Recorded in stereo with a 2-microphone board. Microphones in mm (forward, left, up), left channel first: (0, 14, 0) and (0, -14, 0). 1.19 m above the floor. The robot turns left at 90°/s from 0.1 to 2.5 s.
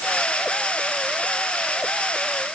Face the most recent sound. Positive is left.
No sound to turn to.